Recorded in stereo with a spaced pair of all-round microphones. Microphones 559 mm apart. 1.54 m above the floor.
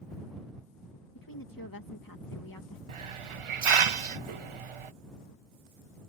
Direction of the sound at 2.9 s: 60° right (ahead or behind).